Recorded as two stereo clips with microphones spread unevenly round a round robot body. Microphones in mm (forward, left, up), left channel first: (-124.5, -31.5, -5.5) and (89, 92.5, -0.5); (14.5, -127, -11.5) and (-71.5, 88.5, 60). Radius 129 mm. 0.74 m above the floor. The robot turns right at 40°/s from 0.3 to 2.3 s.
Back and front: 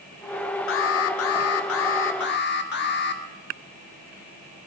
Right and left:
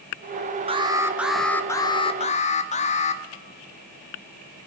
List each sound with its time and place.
0.7 s an alarm: 175° right, 1.4 m; by 3.2 s 110° right, 1.4 m